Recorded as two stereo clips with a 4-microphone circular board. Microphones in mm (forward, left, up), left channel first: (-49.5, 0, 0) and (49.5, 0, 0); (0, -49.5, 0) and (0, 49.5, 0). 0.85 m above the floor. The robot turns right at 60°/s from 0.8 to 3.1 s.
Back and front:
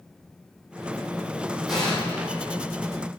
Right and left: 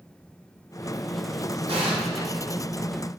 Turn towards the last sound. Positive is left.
turn(degrees=175)